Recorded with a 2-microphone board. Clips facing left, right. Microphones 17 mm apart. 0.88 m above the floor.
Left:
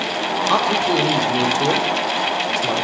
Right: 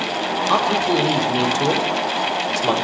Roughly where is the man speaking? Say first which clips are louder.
Even; centre.